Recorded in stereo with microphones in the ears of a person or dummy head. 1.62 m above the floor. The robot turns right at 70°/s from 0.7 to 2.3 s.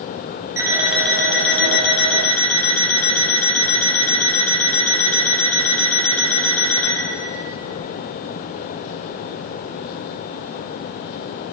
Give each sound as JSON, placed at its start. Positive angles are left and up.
{"t": 0.6, "sound": "an alarm clock", "azimuth_deg": -10, "distance_m": 6.5}